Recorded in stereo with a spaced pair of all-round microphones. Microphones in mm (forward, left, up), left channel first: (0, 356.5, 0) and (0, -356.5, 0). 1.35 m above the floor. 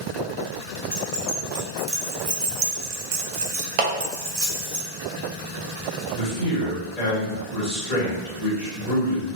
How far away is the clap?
About 0.7 m.